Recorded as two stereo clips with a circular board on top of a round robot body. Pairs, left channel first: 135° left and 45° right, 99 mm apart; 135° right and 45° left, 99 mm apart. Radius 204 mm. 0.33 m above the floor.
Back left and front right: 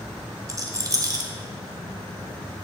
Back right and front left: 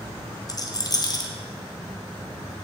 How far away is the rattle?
About 1.0 m.